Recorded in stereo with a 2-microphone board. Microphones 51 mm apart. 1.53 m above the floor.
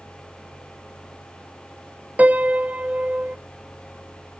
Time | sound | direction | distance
2.2 | a piano | 30° right (ahead or behind) | 0.5 m